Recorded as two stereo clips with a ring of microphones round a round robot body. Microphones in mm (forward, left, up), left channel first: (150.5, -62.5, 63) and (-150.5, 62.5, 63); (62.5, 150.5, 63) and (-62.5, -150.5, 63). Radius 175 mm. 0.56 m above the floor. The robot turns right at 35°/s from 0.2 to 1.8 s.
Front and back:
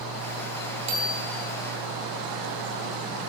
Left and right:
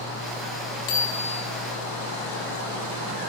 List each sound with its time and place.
0.9 s a bicycle bell: 120° left, 7.5 m; by 1.4 s 135° left, 7.5 m